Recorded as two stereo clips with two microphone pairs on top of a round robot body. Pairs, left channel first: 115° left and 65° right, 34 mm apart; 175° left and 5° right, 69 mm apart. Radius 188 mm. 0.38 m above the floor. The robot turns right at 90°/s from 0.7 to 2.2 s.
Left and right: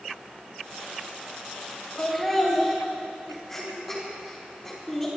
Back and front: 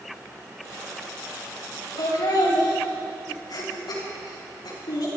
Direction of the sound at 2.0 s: 175° left.